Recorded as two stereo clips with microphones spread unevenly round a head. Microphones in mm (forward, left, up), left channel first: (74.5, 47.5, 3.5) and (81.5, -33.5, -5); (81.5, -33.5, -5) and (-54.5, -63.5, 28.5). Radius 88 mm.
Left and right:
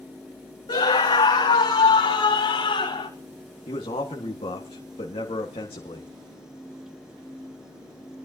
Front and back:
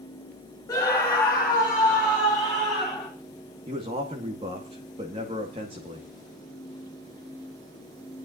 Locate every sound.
0.7 s a scream: 85° left, 1.4 m; by 3.1 s 90° left, 3 m
3.7 s a man speaking: 130° left, 1.7 m